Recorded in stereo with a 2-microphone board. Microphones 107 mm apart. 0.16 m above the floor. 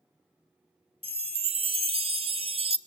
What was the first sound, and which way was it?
A chime, 65° right (ahead or behind).